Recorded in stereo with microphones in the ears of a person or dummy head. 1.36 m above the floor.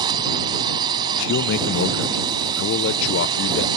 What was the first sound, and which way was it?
A drone, 20° right (ahead or behind).